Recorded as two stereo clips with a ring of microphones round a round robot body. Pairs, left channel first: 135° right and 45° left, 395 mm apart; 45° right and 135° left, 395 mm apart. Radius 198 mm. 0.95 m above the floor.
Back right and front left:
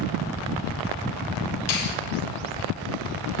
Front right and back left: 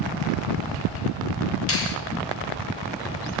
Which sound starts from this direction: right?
A finger snap, at 1.7 s.